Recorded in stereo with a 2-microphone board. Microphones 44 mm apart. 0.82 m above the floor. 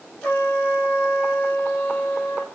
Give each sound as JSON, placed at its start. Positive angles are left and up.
{"t": 0.2, "sound": "a trumpet", "side_deg": 35, "distance_m": 1.6}